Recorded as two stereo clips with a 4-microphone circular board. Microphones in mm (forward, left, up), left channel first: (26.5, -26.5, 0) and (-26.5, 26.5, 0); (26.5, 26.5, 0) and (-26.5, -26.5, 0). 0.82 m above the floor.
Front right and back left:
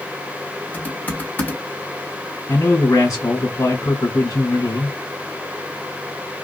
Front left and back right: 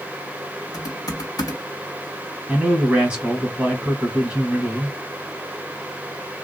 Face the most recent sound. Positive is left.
turn(degrees=-65)